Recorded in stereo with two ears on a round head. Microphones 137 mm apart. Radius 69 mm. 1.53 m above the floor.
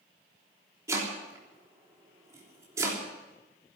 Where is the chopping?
20° right (ahead or behind), 3.5 m.